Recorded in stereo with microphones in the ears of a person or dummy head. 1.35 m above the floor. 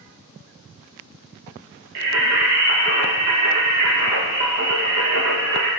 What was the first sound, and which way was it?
Singing, 55° right (ahead or behind).